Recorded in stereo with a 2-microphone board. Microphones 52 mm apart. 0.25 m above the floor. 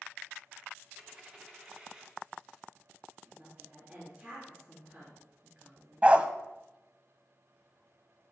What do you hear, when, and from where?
1.0 s a dropped coin: 20° right (ahead or behind), 1.7 m
3.2 s a woman speaking: 30° right (ahead or behind), 3.5 m
6.0 s a dog barking: 25° right (ahead or behind), 0.6 m